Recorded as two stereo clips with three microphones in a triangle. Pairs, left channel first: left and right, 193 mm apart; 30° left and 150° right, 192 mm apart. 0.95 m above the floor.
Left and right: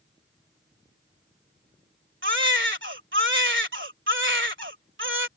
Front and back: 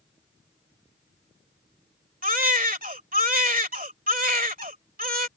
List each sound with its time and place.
2.2 s a baby crying: 105° right